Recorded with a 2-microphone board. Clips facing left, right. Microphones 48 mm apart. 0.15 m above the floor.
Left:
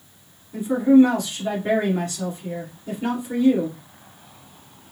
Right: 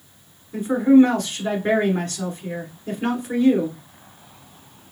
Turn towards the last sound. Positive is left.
turn(degrees=-50)  # may be behind; listen again after turning